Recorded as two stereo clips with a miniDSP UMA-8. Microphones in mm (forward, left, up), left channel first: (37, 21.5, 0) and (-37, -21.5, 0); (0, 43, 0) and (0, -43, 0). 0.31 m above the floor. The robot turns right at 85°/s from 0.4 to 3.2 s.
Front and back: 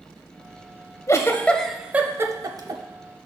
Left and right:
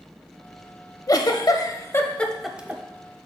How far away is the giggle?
About 0.6 m.